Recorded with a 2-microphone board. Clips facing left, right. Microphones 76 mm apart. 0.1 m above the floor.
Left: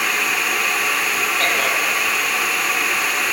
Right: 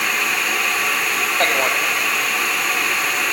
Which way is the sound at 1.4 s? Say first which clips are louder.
Right 3 dB; 30° right (ahead or behind).